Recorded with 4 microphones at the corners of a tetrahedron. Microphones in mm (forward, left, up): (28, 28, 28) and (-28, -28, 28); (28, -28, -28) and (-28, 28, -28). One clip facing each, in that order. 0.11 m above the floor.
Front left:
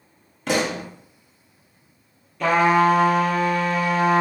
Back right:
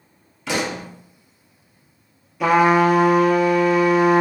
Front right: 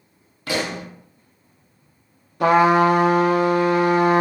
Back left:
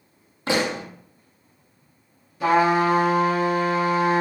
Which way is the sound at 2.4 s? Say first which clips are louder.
Back right 2 dB, front right 4 dB; 55° right.